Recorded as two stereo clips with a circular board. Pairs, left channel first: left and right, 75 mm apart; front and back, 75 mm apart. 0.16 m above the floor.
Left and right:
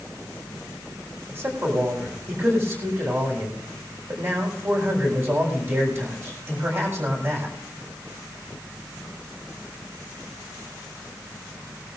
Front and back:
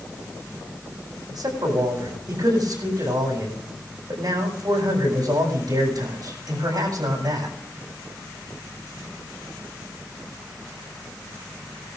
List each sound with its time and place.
1.3 s a man speaking: 145° right, 8.5 m